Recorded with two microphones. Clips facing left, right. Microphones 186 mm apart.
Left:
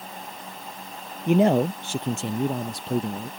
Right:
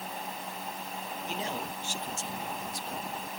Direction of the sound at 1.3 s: 60° left (ahead or behind).